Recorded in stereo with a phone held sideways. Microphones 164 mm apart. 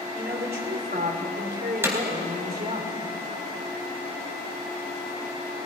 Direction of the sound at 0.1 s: 70° right (ahead or behind).